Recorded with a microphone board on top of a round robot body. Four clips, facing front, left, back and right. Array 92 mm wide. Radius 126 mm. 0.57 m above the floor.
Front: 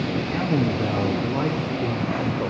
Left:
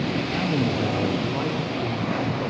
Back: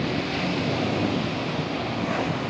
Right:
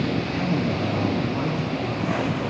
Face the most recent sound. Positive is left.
turn(degrees=25)